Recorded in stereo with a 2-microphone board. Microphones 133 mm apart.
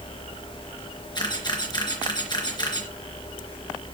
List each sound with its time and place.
1.1 s a camera shutter: 35° left (ahead or behind), 3 m